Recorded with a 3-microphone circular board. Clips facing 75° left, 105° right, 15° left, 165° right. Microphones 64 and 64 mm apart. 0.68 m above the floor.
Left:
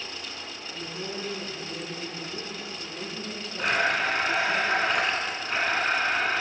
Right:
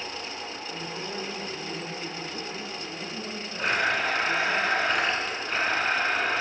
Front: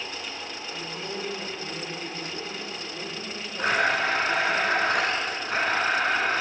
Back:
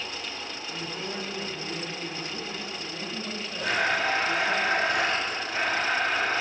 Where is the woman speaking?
165° right, 3.5 m.